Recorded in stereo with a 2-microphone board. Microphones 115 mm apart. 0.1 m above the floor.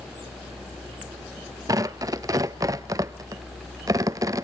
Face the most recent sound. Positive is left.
turn(degrees=-30)  # may be behind; listen again after turning